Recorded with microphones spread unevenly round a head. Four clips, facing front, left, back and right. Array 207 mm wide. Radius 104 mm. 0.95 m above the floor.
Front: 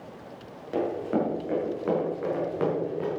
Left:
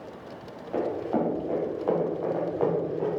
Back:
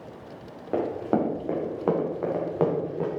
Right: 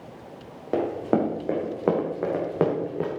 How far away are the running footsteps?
About 3.5 m.